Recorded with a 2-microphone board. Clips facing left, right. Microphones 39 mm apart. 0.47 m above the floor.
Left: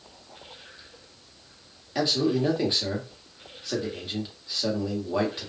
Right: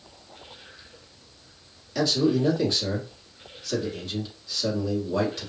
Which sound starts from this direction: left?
A man speaking, at 1.9 s.